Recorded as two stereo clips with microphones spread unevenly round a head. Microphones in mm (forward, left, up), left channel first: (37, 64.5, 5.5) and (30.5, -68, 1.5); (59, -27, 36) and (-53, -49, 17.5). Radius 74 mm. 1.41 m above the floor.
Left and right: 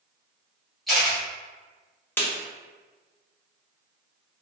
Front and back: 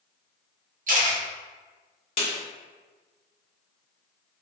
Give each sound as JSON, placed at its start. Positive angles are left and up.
{"t": 0.9, "sound": "a camera shutter", "azimuth_deg": 175, "distance_m": 1.1}
{"t": 2.2, "sound": "a snare drum", "azimuth_deg": 20, "distance_m": 0.9}